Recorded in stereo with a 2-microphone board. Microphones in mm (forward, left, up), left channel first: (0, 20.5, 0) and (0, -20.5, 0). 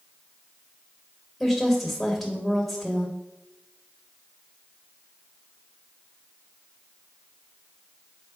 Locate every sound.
1.4 s a woman speaking: 5° left (ahead or behind), 1.2 m